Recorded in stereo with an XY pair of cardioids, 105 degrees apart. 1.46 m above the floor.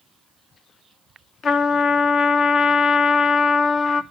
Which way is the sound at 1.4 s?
60° left.